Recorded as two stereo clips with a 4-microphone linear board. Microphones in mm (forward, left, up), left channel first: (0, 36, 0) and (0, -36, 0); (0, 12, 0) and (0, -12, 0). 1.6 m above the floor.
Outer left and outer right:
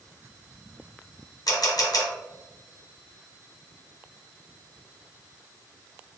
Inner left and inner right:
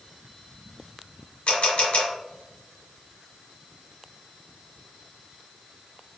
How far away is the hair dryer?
No hair dryer in this recording.